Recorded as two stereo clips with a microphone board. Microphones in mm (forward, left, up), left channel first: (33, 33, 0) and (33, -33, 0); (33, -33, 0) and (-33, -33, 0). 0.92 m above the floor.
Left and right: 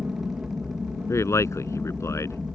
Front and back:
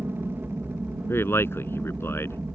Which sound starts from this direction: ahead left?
A man speaking, at 1.1 s.